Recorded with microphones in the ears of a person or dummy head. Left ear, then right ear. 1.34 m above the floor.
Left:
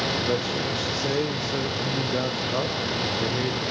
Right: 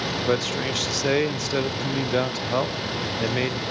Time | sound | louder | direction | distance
0.3 | a man speaking | right 2 dB | 60° right (ahead or behind) | 1.1 m